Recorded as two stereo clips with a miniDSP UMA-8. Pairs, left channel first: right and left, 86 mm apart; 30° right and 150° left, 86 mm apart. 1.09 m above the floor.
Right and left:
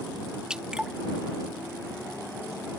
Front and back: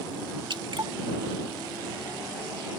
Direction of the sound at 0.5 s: 170° left.